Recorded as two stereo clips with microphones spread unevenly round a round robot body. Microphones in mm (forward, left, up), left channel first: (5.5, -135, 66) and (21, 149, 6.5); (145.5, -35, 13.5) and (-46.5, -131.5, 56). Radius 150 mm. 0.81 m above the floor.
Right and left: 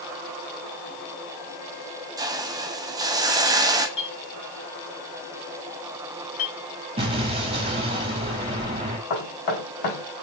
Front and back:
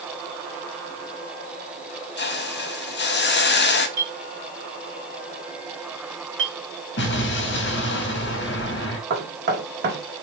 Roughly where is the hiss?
Ahead.